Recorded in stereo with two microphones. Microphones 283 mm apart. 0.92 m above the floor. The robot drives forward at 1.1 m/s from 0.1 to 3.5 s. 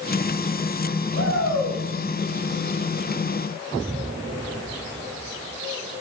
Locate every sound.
1.1 s a shout: 60° left (ahead or behind), 5 m; by 1.8 s 65° left (ahead or behind), 5 m